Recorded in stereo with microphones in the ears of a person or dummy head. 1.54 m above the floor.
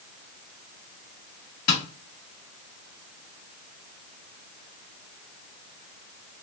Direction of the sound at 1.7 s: 50° left (ahead or behind).